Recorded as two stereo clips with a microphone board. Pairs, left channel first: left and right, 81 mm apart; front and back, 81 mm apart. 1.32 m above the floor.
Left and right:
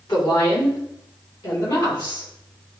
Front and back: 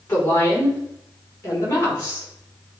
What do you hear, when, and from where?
0.1 s a woman speaking: 60° left, 4.5 m; by 2.3 s 55° left, 5.5 m